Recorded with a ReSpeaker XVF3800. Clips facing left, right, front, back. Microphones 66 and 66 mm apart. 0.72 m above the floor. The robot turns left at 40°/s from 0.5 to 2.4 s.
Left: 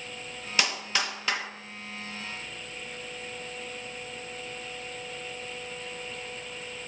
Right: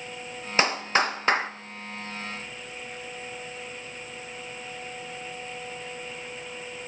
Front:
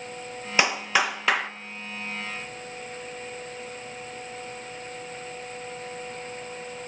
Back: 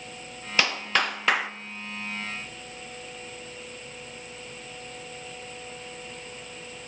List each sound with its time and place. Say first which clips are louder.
0.6 s a clap: right 6 dB, front 2 dB; 60° right, 0.6 m; by 1.5 s 95° right, 0.6 m